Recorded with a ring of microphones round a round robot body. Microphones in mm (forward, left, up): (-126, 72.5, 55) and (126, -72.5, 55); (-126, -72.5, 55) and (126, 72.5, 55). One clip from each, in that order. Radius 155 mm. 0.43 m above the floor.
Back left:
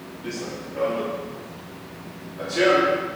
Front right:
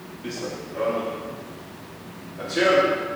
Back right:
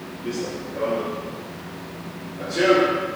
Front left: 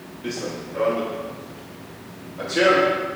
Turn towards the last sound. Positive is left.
turn(degrees=55)